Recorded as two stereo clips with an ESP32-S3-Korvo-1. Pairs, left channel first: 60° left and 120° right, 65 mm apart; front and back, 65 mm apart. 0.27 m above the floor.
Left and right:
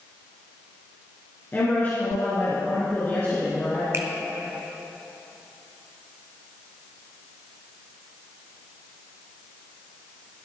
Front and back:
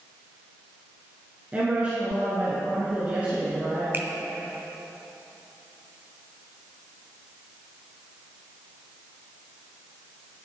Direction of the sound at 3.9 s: 135° right.